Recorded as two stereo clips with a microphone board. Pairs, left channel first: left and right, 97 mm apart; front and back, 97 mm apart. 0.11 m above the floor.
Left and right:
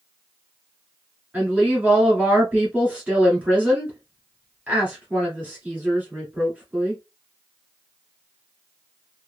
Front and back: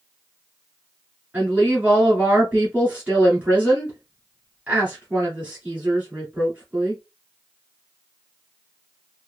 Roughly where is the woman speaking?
Behind right.